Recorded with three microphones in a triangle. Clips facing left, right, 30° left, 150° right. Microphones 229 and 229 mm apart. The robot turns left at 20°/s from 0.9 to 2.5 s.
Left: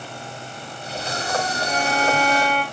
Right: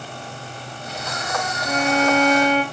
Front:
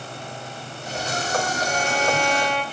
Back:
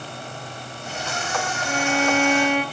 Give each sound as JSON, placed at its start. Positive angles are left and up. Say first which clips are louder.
{"t": 1.6, "sound": "a violin", "louder": "right 6 dB, back 6 dB", "azimuth_deg": -85, "distance_m": 6.0}